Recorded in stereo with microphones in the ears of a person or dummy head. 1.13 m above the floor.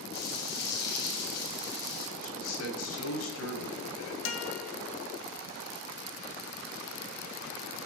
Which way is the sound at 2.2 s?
80° left.